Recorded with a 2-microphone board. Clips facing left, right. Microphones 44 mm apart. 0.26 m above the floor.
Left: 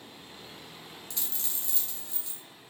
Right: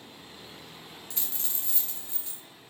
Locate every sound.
1.1 s a dropped coin: 30° right (ahead or behind), 0.9 m